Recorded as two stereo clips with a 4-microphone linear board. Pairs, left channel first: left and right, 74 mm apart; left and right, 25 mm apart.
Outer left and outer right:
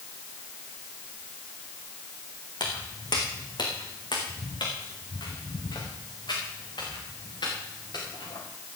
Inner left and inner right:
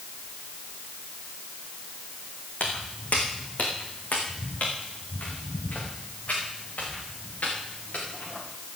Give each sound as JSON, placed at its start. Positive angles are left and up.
{"t": 2.6, "sound": "footsteps", "side_deg": 75, "distance_m": 3.0}